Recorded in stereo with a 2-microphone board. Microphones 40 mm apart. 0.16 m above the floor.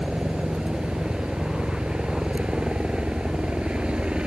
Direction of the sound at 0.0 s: 25° right (ahead or behind).